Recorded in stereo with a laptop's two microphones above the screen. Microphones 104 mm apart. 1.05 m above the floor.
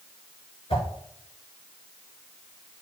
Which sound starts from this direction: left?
A whoosh, at 0.7 s.